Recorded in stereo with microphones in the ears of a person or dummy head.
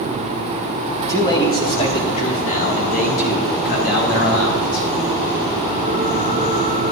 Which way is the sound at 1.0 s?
15° left (ahead or behind).